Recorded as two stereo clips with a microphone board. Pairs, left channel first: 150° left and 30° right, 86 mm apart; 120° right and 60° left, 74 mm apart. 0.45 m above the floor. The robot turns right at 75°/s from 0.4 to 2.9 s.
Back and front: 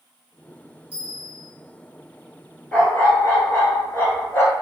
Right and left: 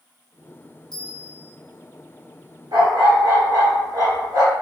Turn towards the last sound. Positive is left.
turn(degrees=90)